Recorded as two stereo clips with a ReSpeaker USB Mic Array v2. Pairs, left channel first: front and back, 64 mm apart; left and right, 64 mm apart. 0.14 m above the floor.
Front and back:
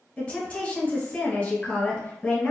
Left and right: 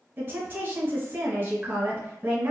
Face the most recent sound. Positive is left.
turn(degrees=-60)